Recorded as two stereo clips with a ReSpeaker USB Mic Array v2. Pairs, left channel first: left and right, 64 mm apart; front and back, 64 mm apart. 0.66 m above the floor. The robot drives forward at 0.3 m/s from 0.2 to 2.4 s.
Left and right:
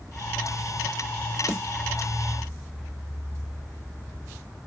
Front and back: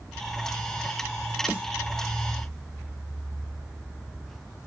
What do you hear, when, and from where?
1.5 s a snare drum: 120° left, 1.8 m